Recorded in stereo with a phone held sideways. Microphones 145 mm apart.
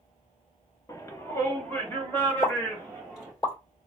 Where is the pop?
30° left (ahead or behind), 2 m.